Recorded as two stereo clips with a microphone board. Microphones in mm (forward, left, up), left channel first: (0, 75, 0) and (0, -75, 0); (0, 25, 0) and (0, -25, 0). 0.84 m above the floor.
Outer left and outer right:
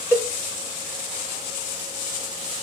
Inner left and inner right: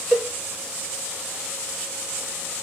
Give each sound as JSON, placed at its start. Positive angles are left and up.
{"t": 0.1, "sound": "a cowbell", "side_deg": -15, "distance_m": 1.3}